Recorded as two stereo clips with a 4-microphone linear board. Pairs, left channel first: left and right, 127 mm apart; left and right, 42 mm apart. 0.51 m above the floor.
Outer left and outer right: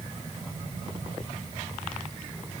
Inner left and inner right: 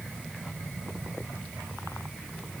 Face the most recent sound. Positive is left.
No sound to turn to.